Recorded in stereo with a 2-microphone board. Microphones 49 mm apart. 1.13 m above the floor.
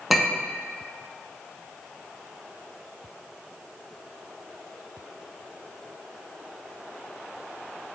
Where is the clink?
Centre (ahead or behind), 0.5 m.